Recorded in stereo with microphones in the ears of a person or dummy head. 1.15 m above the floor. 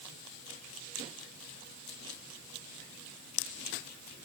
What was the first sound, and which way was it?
Only background noise.